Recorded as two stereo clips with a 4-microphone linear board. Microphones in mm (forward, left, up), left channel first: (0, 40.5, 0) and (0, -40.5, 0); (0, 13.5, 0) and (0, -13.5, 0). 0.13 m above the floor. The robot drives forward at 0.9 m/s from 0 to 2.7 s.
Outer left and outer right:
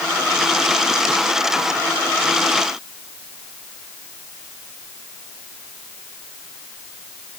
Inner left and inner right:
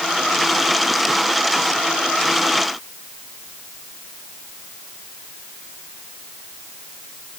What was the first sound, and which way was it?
Only background noise.